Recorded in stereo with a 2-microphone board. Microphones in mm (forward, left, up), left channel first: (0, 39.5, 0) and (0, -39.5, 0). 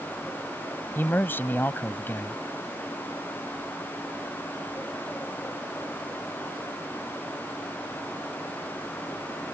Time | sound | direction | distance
0.9 | a man speaking | 25° left (ahead or behind) | ?